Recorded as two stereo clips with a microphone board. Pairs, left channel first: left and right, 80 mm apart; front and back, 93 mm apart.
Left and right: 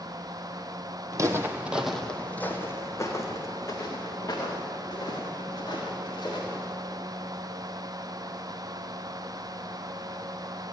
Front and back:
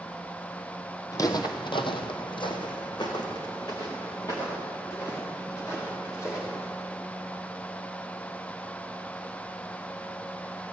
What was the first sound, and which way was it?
Footsteps, 50° right.